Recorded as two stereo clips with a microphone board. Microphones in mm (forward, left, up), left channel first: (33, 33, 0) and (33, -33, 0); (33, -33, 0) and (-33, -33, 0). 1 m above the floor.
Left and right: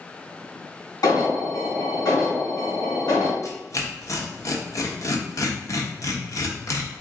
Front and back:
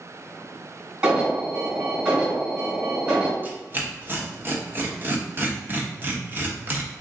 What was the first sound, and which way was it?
An alarm, 110° left.